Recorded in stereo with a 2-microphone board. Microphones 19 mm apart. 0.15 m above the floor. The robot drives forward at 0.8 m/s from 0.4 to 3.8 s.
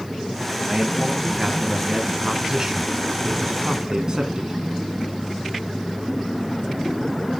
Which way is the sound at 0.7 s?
15° right (ahead or behind).